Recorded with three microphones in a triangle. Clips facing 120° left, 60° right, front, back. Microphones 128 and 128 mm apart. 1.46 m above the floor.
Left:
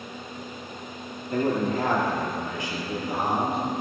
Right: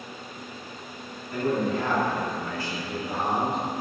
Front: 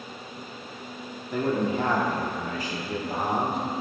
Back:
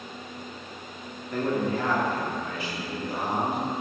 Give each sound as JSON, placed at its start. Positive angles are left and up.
{"t": 1.3, "sound": "a man speaking", "azimuth_deg": 85, "distance_m": 1.2}